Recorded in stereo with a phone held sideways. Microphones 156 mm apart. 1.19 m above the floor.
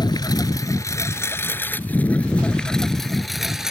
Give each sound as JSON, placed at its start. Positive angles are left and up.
{"t": 0.0, "sound": "a lawn mower", "side_deg": 30}